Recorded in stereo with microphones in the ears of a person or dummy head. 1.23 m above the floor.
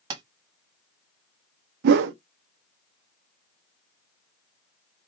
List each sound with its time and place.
0.1 s tapping: 25° right (ahead or behind), 1.4 m
1.8 s a whoosh: 60° right (ahead or behind), 0.5 m